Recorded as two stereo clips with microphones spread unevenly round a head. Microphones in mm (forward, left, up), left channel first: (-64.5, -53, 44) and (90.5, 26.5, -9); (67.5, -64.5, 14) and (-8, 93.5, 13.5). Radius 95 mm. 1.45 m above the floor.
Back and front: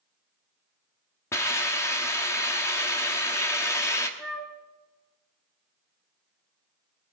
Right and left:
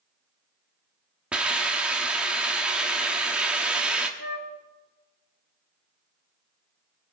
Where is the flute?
80° right, 1.0 m.